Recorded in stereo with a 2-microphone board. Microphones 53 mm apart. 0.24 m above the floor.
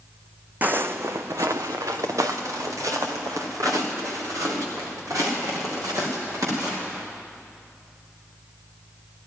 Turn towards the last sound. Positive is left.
turn(degrees=-70)  # may be behind; listen again after turning